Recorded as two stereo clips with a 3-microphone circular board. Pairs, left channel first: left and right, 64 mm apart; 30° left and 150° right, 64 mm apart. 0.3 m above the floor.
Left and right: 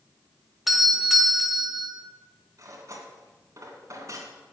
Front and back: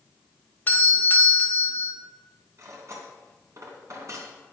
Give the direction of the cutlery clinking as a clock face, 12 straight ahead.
4 o'clock.